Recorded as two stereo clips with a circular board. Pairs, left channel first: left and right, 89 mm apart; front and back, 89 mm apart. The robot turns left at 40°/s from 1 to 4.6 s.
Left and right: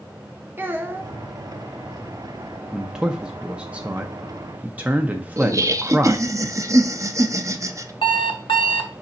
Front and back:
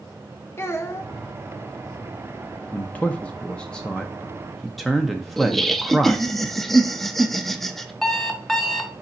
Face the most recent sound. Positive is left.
turn(degrees=85)